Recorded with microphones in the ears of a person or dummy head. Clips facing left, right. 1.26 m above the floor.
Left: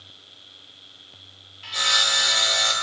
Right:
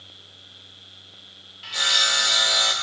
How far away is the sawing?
About 0.5 m.